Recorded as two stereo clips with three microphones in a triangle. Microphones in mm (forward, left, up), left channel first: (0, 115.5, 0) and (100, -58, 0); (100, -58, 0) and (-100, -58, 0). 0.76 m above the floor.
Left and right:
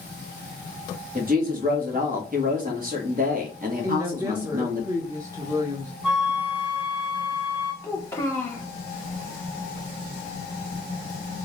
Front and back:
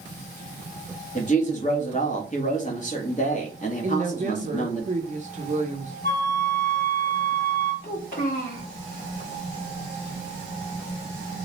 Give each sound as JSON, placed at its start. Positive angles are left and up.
{"t": 1.1, "sound": "a woman speaking", "azimuth_deg": -35, "distance_m": 1.3}
{"t": 3.8, "sound": "a woman speaking", "azimuth_deg": -130, "distance_m": 0.7}
{"t": 6.0, "sound": "a flute", "azimuth_deg": 25, "distance_m": 1.7}
{"t": 7.8, "sound": "a child speaking", "azimuth_deg": 45, "distance_m": 1.5}